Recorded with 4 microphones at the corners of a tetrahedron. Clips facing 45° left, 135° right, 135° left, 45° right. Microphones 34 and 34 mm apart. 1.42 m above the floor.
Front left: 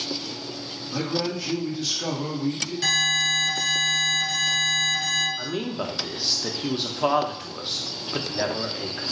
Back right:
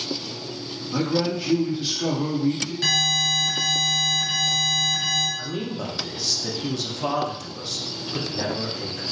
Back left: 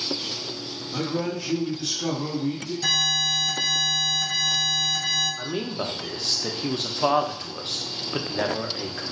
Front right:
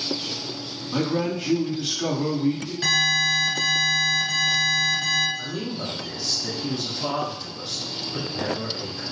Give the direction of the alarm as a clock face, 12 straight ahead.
2 o'clock.